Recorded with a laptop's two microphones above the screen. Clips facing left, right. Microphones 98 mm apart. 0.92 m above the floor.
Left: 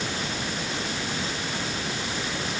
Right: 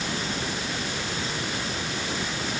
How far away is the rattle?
No rattle in this recording.